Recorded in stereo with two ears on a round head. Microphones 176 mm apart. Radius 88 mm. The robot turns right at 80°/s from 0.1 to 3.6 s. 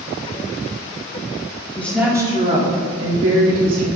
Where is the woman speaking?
165° left, 2.5 m; by 3.9 s 45° right, 2.5 m.